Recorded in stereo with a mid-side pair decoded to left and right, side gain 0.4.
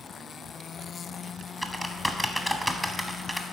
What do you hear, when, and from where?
1.6 s typing on a keyboard: 5° left, 1.0 m